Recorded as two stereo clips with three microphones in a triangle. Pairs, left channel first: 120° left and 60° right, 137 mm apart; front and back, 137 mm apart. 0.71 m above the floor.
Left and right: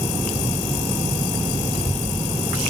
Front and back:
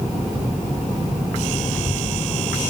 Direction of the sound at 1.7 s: 80° left.